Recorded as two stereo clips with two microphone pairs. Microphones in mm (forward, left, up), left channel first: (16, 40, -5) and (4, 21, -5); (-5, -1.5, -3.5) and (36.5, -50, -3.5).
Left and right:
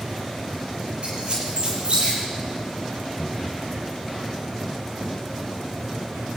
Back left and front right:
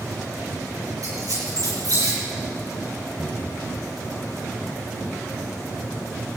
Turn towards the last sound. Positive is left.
turn(degrees=-5)